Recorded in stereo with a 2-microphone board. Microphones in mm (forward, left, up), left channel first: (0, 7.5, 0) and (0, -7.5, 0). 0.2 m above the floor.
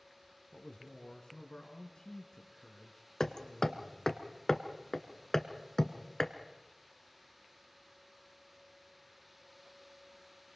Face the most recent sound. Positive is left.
turn(degrees=30)  # may be behind; listen again after turning